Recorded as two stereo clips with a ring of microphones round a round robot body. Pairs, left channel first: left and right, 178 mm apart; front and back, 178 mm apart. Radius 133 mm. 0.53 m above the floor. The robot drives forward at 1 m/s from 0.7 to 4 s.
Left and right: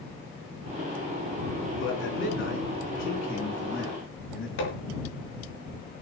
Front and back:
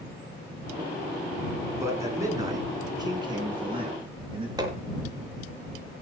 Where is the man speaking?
105° left, 7.5 m; by 4.5 s 120° left, 8.5 m.